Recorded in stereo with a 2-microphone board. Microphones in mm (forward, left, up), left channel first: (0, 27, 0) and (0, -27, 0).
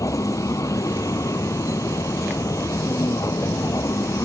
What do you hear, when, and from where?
0.0 s a vehicle: 85° left